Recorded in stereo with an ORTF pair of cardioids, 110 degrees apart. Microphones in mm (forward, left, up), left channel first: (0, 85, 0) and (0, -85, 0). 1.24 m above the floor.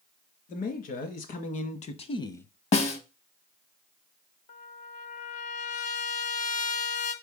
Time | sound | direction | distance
0.5 | a man speaking | 60° left | 1.9 m
2.7 | a snare drum | 40° left | 0.8 m
4.5 | a trumpet | 45° left | 0.8 m